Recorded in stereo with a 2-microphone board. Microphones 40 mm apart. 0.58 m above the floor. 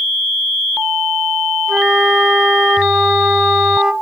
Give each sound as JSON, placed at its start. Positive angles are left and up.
{"t": 1.7, "sound": "a flute", "side_deg": -20, "distance_m": 0.7}